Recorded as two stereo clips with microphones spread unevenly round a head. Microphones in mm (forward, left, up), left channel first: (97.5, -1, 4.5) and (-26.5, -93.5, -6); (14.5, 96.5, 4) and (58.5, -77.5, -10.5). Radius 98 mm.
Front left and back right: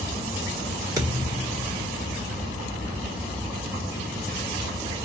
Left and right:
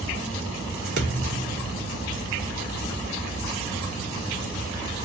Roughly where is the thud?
Right.